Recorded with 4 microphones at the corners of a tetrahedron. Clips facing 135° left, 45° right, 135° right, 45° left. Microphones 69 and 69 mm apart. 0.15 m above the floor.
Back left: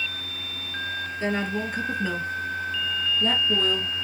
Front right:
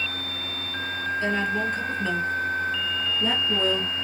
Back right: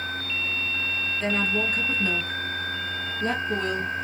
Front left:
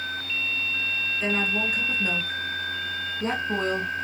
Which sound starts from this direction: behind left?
A woman speaking, at 1.2 s.